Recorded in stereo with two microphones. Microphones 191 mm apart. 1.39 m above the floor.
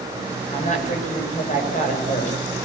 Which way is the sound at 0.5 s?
40° left (ahead or behind).